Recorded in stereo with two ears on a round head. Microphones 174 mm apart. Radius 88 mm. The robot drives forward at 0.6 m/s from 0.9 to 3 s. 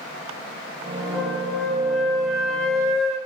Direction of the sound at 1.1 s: Centre (ahead or behind).